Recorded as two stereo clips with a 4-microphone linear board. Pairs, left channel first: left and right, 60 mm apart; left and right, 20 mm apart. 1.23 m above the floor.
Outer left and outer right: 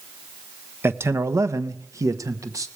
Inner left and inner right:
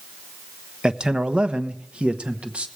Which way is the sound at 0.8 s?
40° right (ahead or behind).